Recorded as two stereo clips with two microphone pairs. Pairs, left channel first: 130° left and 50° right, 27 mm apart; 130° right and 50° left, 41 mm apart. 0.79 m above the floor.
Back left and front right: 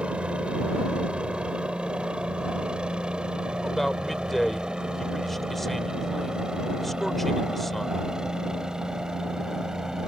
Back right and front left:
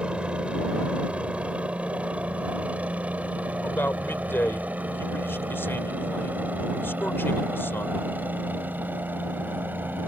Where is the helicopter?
5° right; by 10.1 s 20° left.